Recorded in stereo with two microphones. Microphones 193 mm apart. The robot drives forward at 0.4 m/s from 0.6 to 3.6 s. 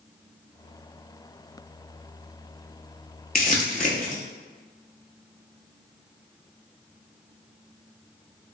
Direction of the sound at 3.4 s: 50° left (ahead or behind).